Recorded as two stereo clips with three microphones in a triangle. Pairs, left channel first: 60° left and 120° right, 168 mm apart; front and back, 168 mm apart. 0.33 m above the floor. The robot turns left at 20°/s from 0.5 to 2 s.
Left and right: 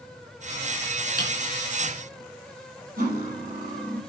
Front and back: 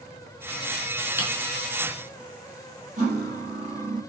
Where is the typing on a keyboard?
105° right, 5 m.